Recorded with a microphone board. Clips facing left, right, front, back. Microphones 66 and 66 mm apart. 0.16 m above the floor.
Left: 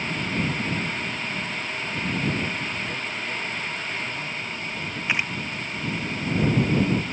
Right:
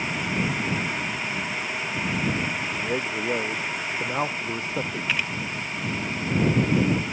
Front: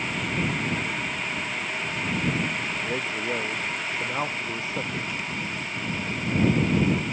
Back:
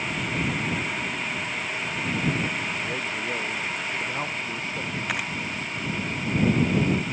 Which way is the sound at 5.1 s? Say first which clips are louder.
Left 3 dB, back 3 dB; 160° left.